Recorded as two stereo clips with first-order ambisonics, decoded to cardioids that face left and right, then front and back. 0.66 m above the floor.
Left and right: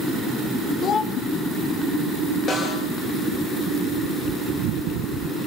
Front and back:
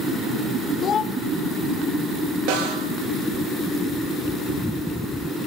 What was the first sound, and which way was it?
A child speaking, 45° left.